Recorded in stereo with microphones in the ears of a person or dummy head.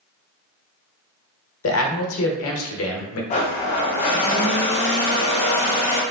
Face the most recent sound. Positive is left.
turn(degrees=35)  # may be behind; listen again after turning